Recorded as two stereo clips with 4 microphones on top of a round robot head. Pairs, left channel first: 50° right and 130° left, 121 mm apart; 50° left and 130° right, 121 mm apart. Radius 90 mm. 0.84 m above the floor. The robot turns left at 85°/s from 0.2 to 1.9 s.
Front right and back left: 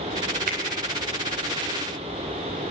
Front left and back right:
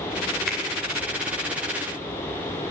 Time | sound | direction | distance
0.5 | a finger snap | 140° left | 3 m